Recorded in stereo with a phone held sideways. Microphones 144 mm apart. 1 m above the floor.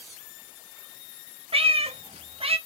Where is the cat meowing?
40° right (ahead or behind), 0.6 m.